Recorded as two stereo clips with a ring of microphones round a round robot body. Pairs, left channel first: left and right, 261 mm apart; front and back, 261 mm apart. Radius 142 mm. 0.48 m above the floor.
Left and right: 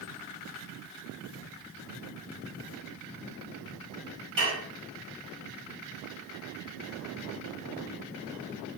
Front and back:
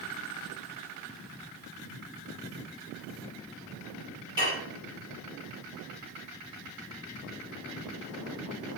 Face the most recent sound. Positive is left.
turn(degrees=-105)